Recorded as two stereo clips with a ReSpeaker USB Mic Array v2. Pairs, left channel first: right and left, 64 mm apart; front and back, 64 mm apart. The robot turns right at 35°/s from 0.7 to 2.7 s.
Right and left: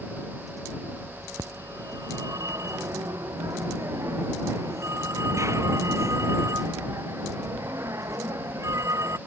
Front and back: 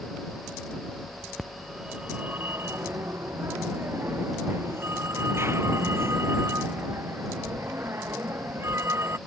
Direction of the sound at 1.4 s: 85° left.